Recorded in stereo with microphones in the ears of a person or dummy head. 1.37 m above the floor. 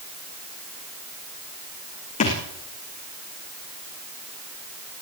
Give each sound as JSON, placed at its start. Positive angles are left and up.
{"t": 2.2, "sound": "a thud", "side_deg": 45, "distance_m": 6.0}